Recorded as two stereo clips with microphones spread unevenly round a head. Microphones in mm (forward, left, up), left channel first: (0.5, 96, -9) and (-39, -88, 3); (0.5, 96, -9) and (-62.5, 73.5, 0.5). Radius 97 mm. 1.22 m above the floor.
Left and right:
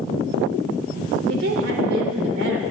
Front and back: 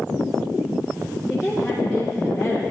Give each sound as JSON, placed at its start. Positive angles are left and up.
{"t": 1.3, "sound": "a woman speaking", "azimuth_deg": -75, "distance_m": 4.0}